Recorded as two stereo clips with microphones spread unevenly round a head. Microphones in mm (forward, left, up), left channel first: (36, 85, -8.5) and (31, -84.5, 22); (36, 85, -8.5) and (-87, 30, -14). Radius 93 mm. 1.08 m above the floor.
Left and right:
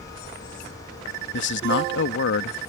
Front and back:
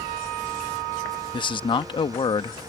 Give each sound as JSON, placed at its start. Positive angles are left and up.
{"t": 1.3, "sound": "a man speaking", "azimuth_deg": 80}